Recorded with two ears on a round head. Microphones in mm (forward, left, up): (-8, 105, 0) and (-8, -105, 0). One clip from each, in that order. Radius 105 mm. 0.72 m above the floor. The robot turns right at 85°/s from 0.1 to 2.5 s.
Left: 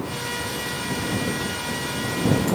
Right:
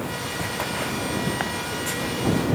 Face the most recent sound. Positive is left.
No sound to turn to.